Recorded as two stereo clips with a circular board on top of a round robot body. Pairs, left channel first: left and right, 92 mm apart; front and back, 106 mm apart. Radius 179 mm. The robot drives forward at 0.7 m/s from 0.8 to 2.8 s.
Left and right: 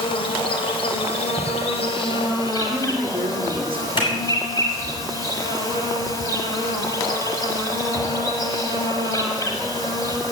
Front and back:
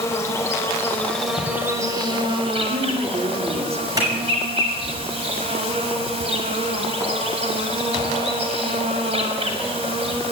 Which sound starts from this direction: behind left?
A clap, at 4.0 s.